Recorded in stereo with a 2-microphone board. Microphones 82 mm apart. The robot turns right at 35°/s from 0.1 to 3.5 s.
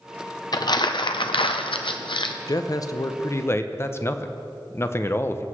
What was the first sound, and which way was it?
Crumpling, 55° left.